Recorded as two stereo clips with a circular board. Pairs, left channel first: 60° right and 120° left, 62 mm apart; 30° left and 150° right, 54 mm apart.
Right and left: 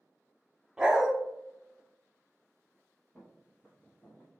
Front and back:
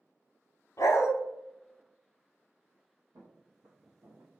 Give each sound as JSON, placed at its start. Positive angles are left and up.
{"t": 0.8, "sound": "a dog barking", "azimuth_deg": 40, "distance_m": 0.5}
{"t": 3.1, "sound": "footsteps", "azimuth_deg": -140, "distance_m": 1.0}